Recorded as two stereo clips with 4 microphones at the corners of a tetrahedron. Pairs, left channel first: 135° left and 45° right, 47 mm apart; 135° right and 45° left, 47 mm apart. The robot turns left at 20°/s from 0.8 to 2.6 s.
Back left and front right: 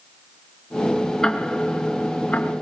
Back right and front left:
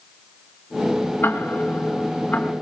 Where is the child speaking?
No child speaking in this recording.